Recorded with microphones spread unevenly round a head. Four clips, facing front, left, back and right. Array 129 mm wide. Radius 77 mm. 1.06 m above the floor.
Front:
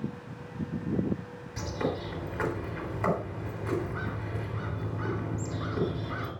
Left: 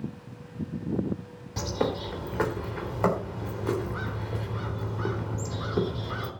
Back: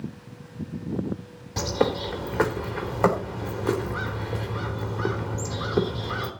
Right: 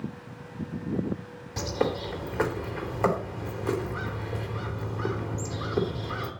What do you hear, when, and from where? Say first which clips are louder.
1.6 s a bird: right 1 dB, back 8 dB; 155° right, 3 m